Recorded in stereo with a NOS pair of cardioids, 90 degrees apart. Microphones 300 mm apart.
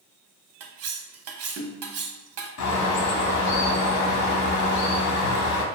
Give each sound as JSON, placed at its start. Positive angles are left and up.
{"t": 0.6, "sound": "cutlery clinking", "azimuth_deg": -55, "distance_m": 0.6}
{"t": 2.6, "sound": "a bird", "azimuth_deg": 65, "distance_m": 0.6}